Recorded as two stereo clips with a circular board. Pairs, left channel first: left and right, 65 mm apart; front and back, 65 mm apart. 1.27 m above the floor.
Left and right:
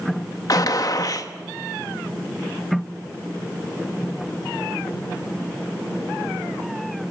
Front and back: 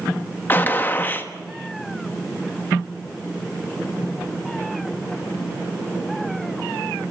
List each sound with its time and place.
0.5 s a gunshot: 60° left, 1.3 m